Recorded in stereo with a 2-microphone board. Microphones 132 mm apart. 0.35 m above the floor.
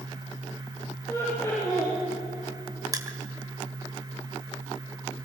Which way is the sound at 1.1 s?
25° left (ahead or behind).